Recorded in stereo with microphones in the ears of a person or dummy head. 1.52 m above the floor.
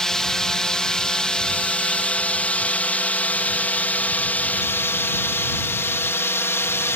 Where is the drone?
Centre (ahead or behind); by 7.0 s 10° left (ahead or behind).